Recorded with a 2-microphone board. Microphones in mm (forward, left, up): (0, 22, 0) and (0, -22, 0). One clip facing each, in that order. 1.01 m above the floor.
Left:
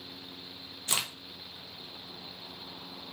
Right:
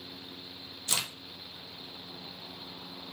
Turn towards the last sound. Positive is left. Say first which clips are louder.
# left 1 dB
turn(degrees=20)  # may be behind; listen again after turning